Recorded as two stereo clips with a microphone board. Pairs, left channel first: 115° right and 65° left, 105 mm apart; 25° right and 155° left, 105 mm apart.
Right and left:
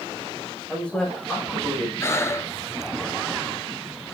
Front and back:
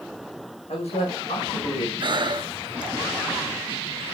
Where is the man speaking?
30° right, 6 m.